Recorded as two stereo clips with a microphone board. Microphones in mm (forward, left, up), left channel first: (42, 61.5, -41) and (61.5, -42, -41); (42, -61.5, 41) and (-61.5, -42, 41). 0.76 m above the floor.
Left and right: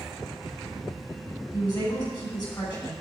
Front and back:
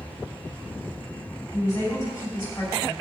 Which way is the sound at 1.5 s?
50° left.